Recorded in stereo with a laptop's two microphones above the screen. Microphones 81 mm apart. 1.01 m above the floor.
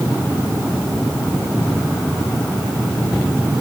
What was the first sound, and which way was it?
Only background noise.